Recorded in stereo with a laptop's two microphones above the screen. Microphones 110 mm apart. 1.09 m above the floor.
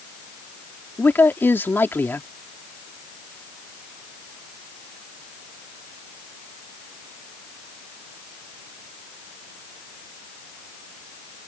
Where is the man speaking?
20° left (ahead or behind).